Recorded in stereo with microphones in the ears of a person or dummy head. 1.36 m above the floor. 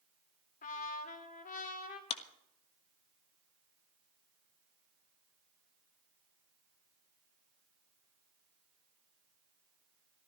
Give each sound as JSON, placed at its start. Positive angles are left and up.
{"t": 0.6, "sound": "a trumpet", "side_deg": 50, "distance_m": 2.0}
{"t": 2.1, "sound": "a clap", "side_deg": 35, "distance_m": 1.3}